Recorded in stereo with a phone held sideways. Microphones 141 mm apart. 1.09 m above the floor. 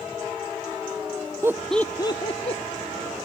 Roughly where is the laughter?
Centre.